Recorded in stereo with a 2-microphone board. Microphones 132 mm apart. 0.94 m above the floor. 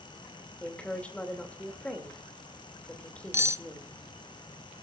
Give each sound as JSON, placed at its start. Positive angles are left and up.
{"t": 0.6, "sound": "a woman speaking", "side_deg": 10, "distance_m": 2.5}
{"t": 3.3, "sound": "cutlery clinking", "side_deg": -20, "distance_m": 0.6}